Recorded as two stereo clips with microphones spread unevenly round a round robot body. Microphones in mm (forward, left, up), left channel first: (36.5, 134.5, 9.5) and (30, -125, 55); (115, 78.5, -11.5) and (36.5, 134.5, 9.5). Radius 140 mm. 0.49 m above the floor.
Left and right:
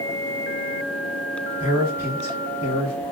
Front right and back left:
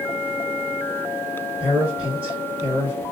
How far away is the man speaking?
About 1.7 m.